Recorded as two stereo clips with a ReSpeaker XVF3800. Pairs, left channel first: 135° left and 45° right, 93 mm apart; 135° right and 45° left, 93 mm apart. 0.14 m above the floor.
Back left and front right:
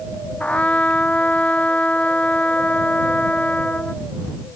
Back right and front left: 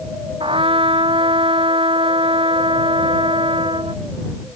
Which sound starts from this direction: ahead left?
A trumpet, at 0.4 s.